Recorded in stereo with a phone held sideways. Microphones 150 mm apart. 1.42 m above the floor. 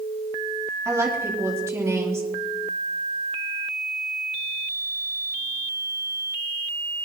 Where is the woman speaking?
20° right (ahead or behind), 4 m.